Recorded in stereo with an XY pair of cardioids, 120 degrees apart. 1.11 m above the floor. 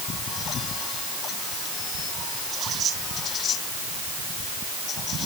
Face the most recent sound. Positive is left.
No sound to turn to.